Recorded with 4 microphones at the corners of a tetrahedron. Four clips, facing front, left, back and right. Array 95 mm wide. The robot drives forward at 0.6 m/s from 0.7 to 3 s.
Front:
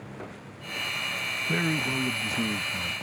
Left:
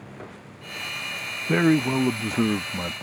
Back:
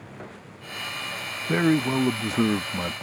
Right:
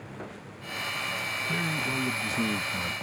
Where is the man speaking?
115° left; by 2.9 s 150° left.